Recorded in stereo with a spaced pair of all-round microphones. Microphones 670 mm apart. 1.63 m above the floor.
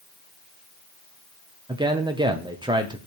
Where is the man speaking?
5° right (ahead or behind), 0.9 m.